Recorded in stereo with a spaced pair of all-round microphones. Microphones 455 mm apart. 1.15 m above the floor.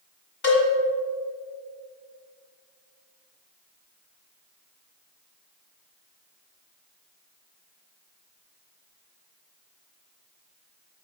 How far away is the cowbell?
About 1.7 m.